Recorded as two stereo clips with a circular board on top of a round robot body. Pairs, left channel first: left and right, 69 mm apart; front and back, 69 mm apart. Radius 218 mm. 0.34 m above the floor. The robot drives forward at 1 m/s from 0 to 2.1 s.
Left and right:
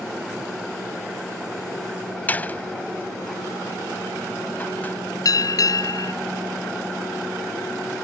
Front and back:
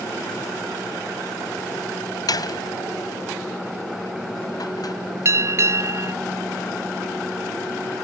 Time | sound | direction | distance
2.3 | a door slam | 25° left | ?
5.2 | a bell | 130° left | ?